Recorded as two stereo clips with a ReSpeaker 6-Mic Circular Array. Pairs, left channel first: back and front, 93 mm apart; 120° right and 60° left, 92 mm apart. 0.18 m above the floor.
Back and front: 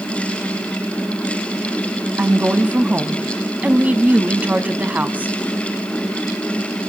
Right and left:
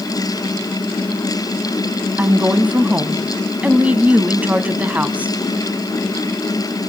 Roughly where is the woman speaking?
Ahead left.